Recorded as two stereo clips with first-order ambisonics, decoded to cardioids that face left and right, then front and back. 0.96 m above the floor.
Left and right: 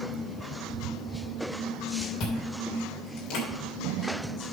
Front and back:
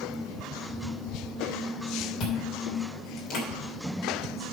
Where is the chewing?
45° left, 3 m.